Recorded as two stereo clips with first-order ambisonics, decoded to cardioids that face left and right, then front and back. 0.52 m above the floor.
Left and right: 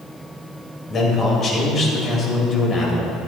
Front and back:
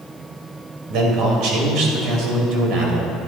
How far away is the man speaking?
About 2 m.